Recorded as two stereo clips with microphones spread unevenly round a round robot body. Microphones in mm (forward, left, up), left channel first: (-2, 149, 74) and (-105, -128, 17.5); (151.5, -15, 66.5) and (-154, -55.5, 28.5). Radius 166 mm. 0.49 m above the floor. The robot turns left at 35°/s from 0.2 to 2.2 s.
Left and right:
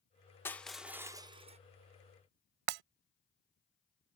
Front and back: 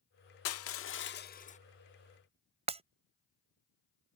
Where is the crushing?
20° right; by 1.6 s 60° right.